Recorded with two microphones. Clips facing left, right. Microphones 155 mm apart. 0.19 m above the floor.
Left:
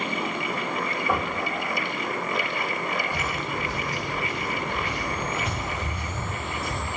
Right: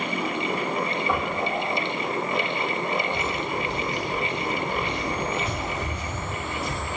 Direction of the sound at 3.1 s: 75° left (ahead or behind).